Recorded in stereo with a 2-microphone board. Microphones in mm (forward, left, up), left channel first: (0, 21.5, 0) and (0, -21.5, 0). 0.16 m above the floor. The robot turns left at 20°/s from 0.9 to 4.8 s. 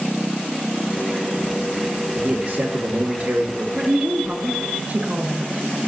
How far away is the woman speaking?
About 1.7 m.